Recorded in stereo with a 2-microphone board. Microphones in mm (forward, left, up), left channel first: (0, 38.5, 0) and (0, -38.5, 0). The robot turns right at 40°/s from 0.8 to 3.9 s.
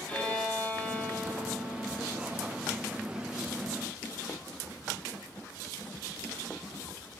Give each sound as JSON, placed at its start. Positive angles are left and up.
{"t": 0.1, "sound": "a violin", "azimuth_deg": 15, "distance_m": 4.5}